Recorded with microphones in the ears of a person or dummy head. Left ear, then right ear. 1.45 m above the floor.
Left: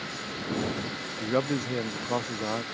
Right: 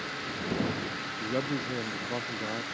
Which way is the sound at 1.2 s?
30° left (ahead or behind).